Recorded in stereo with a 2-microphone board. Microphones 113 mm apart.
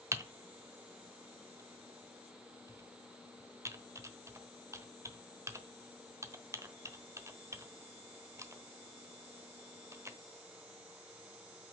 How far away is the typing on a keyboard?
About 1.1 m.